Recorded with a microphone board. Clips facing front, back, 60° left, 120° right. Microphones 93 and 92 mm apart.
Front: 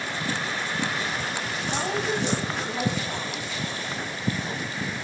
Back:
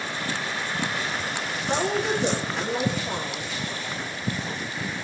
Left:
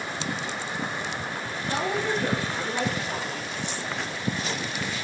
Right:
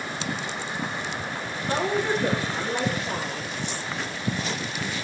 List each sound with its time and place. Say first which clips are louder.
1.7 s a woman speaking: back 3 dB, right 2 dB; 165° right, 5 m